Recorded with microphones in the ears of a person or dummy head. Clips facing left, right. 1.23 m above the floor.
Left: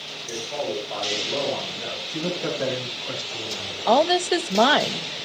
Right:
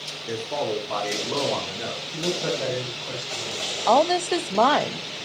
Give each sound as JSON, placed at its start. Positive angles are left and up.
{"t": 0.3, "sound": "a man speaking", "side_deg": -75, "distance_m": 4.0}
{"t": 2.1, "sound": "a man speaking", "side_deg": 5, "distance_m": 8.5}
{"t": 3.9, "sound": "a woman speaking", "side_deg": 5, "distance_m": 0.6}